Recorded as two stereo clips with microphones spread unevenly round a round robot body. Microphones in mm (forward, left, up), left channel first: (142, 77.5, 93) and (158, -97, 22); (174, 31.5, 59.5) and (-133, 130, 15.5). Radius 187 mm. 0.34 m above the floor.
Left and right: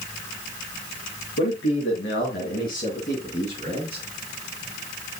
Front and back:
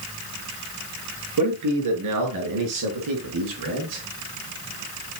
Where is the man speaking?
140° left, 6.5 m; by 4.0 s 175° left, 4.5 m.